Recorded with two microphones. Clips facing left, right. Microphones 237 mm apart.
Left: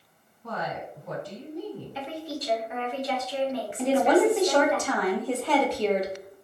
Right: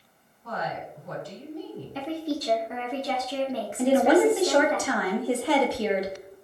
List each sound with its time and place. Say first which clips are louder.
0.4 s a woman speaking: even; 70° left (ahead or behind), 1.5 m
1.9 s a woman speaking: right 9 dB; 45° right (ahead or behind), 0.6 m
3.8 s a woman speaking: right 2 dB; 10° right (ahead or behind), 0.6 m